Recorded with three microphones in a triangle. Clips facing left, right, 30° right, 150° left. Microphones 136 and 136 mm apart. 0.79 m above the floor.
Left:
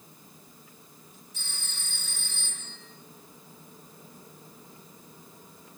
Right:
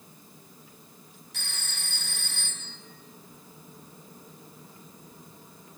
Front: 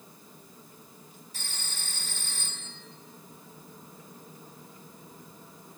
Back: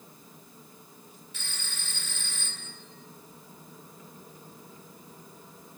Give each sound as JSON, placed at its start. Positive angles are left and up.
{"t": 1.3, "sound": "a phone ringing", "azimuth_deg": -80, "distance_m": 3.5}